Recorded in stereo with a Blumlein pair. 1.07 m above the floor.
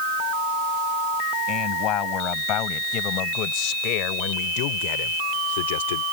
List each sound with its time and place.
1.5 s a man speaking: 35° left; by 6.0 s 60° left